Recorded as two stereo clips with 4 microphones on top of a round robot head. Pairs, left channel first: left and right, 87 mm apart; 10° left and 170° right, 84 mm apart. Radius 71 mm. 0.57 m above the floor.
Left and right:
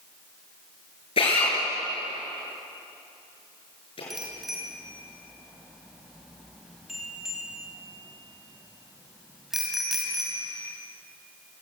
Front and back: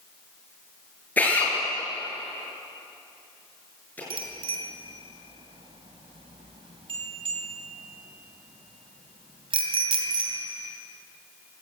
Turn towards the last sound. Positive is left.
turn(degrees=180)